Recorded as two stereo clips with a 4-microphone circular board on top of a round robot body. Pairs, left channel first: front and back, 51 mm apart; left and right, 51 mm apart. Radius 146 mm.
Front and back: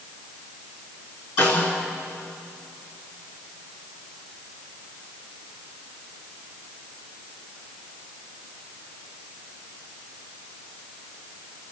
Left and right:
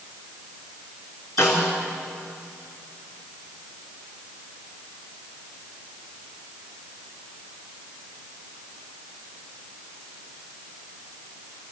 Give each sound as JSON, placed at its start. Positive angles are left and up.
{"t": 1.4, "sound": "a snare drum", "azimuth_deg": 50, "distance_m": 4.0}